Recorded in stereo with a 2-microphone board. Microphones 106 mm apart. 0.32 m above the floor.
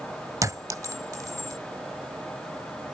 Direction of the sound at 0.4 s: 35° right (ahead or behind).